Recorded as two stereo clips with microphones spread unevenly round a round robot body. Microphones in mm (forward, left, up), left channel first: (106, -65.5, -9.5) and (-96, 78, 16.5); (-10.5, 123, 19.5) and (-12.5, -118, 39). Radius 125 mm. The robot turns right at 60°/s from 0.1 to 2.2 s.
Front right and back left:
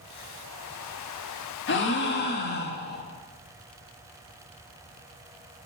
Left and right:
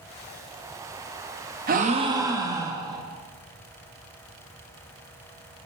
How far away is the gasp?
About 1.0 m.